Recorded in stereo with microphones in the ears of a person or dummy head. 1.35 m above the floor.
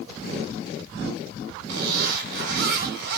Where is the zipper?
50° right (ahead or behind), 1.6 m.